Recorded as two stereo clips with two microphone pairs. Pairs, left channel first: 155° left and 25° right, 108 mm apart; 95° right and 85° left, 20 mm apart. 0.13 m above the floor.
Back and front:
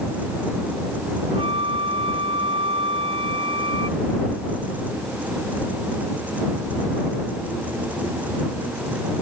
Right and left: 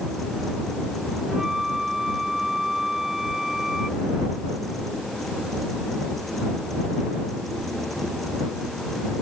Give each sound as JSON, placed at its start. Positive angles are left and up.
{"t": 1.3, "sound": "a flute", "azimuth_deg": 10}